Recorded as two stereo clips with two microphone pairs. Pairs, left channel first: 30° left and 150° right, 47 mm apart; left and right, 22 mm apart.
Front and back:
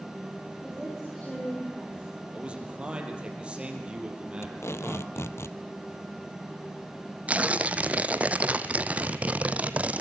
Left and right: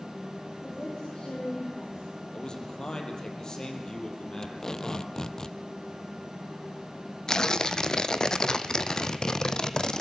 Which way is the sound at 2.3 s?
140° left.